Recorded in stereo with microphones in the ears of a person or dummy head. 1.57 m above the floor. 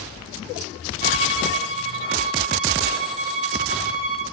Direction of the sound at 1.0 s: 40° right (ahead or behind).